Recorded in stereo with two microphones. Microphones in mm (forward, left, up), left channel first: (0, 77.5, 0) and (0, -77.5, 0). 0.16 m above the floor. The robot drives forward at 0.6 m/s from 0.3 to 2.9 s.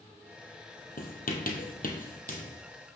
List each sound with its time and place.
1.0 s writing: 75° left (ahead or behind), 1.4 m; by 2.6 s 60° left (ahead or behind), 1.6 m